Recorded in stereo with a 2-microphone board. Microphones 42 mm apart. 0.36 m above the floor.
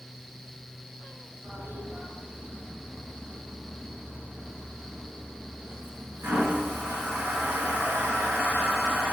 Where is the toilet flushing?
80° right, 1.5 m.